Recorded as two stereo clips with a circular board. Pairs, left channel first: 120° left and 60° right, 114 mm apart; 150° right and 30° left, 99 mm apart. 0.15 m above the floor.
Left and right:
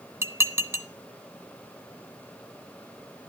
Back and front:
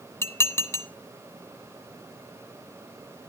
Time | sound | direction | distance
0.2 | dishes clattering | 105° right | 0.8 m